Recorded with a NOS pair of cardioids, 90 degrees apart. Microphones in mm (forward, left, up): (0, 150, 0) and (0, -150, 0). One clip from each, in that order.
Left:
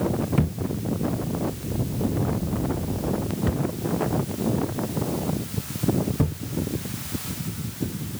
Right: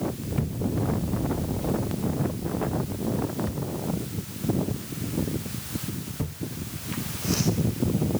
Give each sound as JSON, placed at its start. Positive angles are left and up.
{"t": 0.4, "sound": "a thud", "azimuth_deg": 50}